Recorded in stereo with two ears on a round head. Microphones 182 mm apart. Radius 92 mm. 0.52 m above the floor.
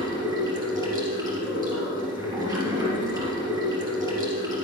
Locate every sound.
0.0 s running water: 20° right (ahead or behind), 3.5 m